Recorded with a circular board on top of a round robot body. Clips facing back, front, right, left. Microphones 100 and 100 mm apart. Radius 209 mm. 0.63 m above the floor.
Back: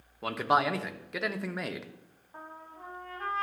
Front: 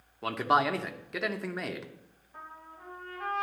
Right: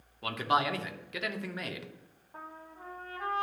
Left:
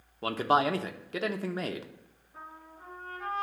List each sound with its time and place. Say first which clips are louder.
0.2 s a man speaking: even, left 3 dB; 90° left, 1.2 m
2.3 s a trumpet: back 1 dB, right 1 dB; 125° right, 0.6 m